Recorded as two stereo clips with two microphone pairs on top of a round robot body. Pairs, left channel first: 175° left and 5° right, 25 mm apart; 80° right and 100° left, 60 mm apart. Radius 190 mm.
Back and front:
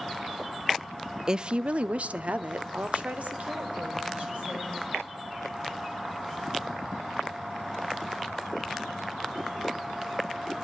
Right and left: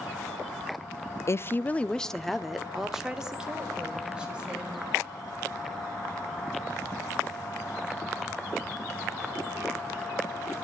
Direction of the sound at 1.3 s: 65° right.